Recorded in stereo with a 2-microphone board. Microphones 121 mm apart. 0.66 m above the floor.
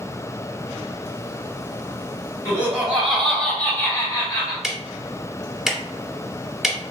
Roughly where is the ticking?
Centre.